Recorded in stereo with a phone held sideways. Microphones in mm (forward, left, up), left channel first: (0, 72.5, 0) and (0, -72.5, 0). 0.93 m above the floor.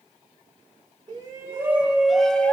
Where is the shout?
25° right (ahead or behind), 1.0 m; by 2.5 s 10° left (ahead or behind), 0.8 m.